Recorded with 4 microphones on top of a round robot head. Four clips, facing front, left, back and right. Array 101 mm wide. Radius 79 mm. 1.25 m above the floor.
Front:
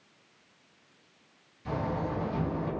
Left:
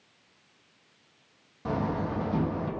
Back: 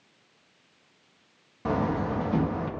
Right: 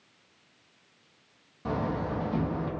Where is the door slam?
175° left, 1.7 m.